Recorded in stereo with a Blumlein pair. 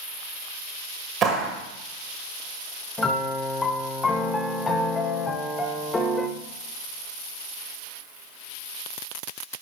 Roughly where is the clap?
Ahead right.